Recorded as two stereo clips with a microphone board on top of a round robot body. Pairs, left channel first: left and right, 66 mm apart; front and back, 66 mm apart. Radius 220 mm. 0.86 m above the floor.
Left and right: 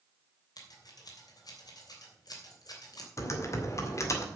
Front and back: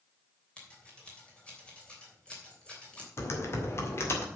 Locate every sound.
0.6 s scissors: 70° left, 3 m
3.2 s typing on a keyboard: 45° left, 1.9 m